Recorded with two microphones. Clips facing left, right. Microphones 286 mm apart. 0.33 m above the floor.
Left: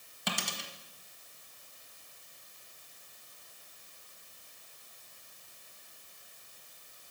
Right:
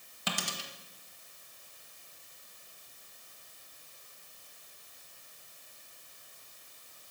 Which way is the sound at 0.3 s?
Centre (ahead or behind).